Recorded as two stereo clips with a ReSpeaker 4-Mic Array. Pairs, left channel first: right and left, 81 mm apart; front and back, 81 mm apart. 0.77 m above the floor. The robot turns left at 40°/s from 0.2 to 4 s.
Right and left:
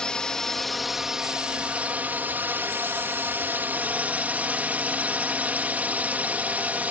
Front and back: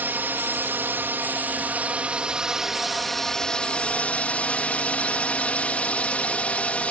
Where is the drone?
160° right; by 6.9 s 50° left.